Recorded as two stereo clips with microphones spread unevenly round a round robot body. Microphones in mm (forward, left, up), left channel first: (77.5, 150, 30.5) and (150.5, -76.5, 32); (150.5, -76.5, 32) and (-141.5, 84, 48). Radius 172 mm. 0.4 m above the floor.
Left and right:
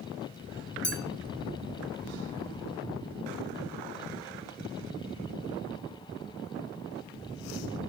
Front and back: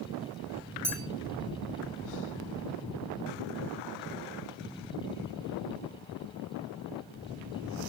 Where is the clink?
70° left, 3 m.